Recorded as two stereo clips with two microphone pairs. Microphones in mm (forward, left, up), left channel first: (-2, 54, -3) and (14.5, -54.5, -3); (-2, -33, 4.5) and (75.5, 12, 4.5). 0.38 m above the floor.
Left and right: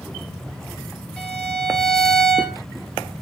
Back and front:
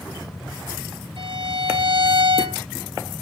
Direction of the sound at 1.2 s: 15° left.